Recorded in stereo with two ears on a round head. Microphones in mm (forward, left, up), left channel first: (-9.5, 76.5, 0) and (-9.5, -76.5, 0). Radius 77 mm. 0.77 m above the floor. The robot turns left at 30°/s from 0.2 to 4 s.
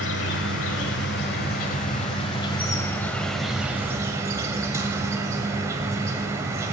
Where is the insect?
95° left, 1.4 m; by 6.7 s 20° right, 1.4 m.